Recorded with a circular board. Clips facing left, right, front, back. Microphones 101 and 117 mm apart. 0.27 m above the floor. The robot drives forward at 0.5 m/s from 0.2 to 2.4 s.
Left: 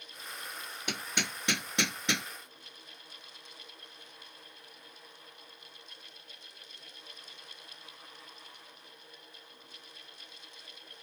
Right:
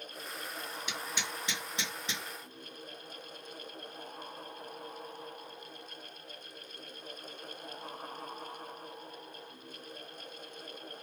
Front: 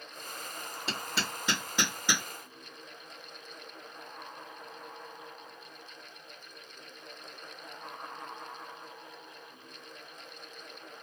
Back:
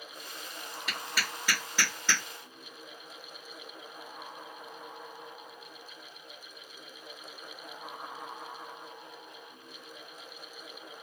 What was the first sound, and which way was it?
Hammering, 60° left.